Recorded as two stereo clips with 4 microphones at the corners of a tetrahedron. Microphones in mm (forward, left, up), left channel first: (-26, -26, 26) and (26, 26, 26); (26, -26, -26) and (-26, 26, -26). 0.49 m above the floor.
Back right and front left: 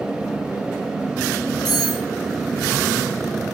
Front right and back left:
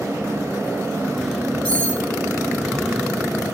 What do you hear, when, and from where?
1.6 s cutlery clinking: 120° right, 10 m